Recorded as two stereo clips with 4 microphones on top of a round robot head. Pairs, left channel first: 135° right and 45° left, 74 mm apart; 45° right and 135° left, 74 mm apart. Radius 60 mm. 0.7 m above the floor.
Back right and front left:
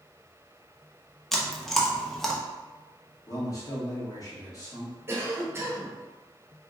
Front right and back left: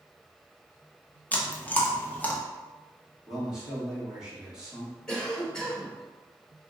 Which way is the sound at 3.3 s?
150° right.